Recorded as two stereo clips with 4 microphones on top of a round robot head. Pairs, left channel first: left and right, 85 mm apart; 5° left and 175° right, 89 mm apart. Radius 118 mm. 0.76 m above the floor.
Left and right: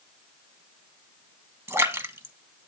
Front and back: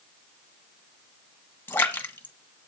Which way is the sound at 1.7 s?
55° right.